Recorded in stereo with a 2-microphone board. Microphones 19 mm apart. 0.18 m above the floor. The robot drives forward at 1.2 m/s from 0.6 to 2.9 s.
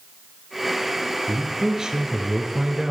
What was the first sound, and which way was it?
A man speaking, 35° right (ahead or behind).